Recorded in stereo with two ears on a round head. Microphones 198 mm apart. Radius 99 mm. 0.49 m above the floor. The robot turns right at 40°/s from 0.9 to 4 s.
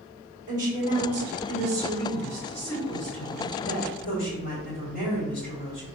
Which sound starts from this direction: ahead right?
A woman speaking, at 0.5 s.